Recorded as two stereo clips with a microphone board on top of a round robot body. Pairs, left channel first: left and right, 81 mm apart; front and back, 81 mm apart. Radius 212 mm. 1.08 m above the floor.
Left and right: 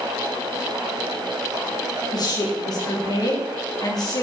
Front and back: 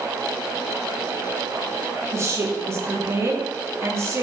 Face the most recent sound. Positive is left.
turn(degrees=125)